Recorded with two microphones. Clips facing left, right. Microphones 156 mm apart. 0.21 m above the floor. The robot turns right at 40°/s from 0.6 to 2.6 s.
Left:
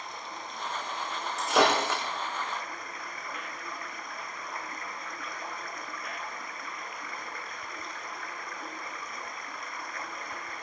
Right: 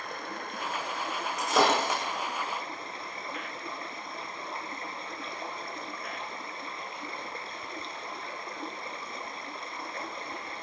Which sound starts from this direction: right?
Running water, at 0.0 s.